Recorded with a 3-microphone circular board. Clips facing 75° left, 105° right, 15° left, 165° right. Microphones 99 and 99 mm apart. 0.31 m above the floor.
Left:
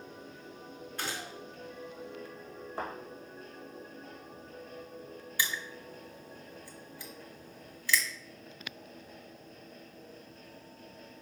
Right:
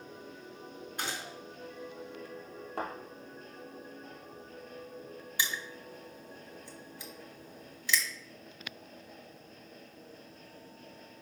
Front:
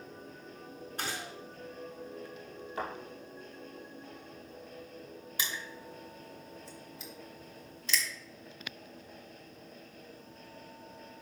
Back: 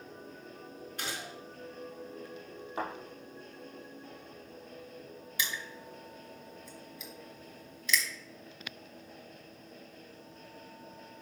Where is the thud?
100° right, 2.5 m.